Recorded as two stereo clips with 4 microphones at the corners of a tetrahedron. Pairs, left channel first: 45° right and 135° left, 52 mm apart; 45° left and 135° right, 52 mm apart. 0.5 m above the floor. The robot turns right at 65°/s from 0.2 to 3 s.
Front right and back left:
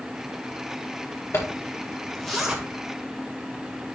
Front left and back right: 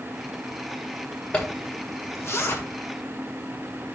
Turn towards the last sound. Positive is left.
turn(degrees=90)